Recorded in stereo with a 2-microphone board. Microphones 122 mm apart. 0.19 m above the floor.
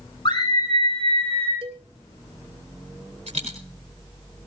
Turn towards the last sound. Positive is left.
turn(degrees=-70)  # may be behind; listen again after turning